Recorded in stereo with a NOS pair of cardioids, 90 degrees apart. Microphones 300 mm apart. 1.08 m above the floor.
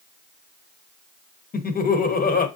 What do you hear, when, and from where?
1.5 s laughter: 30° left, 1.0 m